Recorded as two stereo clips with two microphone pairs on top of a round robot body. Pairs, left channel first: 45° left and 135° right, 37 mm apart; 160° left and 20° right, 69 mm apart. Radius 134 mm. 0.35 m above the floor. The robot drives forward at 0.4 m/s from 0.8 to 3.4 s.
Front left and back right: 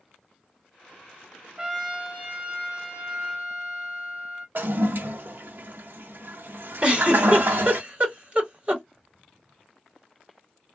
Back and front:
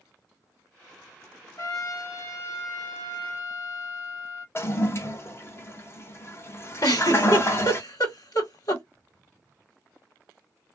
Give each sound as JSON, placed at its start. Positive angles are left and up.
{"t": 1.6, "sound": "a trumpet", "azimuth_deg": 160, "distance_m": 1.5}
{"t": 4.5, "sound": "a toilet flushing", "azimuth_deg": -150, "distance_m": 0.9}
{"t": 6.8, "sound": "a giggle", "azimuth_deg": 175, "distance_m": 2.5}